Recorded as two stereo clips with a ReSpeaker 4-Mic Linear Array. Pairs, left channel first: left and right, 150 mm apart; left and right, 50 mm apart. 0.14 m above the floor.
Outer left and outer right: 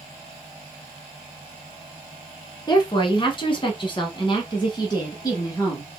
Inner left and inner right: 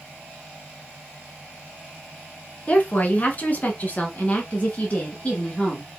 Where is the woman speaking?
30° left (ahead or behind), 1.4 m; by 5.8 s 20° left (ahead or behind), 1.7 m.